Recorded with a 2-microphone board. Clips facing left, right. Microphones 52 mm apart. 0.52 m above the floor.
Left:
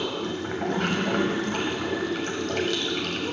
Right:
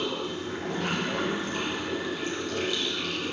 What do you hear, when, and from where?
0.0 s running water: 65° left (ahead or behind), 1.4 m